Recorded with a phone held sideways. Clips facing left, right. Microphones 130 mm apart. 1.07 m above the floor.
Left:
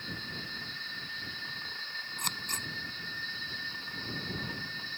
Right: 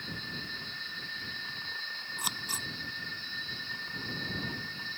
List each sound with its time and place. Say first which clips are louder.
2.2 s scissors: right 1 dB; 10° right (ahead or behind)